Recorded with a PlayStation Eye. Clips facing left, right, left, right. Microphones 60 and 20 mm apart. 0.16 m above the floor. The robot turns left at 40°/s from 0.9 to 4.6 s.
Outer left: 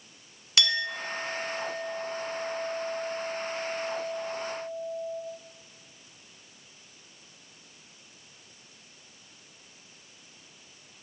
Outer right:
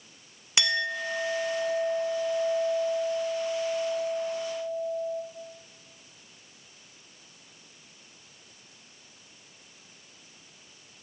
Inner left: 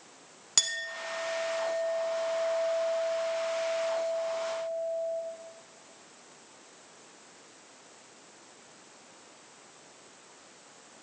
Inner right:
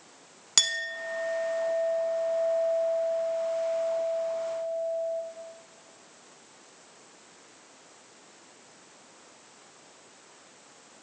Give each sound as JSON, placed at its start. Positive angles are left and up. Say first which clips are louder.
{"t": 0.6, "sound": "a clink", "louder": "outer right 1 dB, inner right 4 dB", "side_deg": -20, "distance_m": 0.7}